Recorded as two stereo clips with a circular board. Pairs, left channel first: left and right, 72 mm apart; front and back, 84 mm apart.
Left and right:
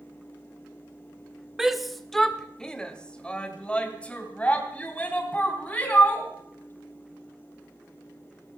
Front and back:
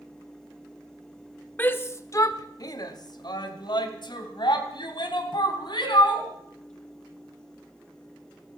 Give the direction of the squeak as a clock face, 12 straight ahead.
I don't hear a squeak.